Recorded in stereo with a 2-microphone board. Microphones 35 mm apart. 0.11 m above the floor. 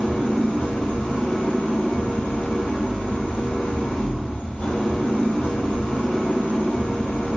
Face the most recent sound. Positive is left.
turn(degrees=50)  # may be behind; listen again after turning